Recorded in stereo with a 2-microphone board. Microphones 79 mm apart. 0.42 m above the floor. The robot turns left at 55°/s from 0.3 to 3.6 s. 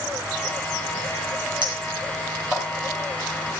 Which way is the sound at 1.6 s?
70° right (ahead or behind).